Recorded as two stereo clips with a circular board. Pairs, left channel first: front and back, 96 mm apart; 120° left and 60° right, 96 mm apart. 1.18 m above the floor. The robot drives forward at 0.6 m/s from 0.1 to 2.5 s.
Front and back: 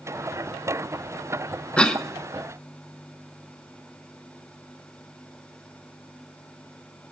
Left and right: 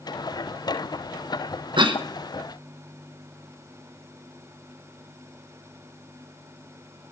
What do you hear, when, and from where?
1.8 s a cough: 80° right, 1.2 m; by 2.0 s 85° right, 1.2 m